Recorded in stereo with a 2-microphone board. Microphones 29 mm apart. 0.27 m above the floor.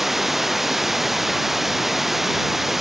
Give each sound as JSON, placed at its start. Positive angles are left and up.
{"t": 0.0, "sound": "running water", "side_deg": -5}